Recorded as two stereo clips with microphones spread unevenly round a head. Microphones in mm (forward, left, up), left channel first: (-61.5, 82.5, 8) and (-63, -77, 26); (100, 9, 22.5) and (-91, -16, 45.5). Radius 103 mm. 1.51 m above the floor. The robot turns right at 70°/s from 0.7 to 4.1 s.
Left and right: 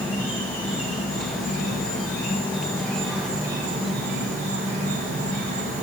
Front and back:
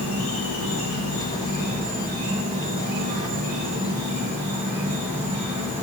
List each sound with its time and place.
0.0 s an insect: 20° left, 0.9 m; by 5.8 s 100° right, 0.9 m